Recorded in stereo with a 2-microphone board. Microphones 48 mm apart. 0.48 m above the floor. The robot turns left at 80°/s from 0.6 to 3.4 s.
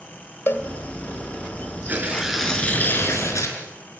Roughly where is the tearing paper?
Behind right.